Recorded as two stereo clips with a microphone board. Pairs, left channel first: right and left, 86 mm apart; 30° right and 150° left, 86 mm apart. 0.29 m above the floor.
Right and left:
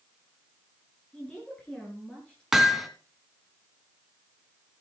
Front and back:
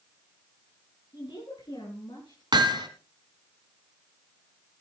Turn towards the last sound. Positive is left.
turn(degrees=175)